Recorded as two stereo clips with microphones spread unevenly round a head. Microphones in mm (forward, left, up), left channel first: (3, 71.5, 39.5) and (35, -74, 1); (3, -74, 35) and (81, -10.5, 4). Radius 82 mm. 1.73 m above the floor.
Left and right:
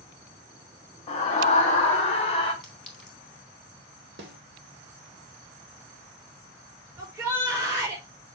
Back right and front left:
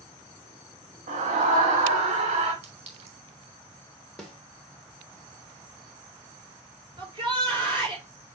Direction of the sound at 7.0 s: Straight ahead.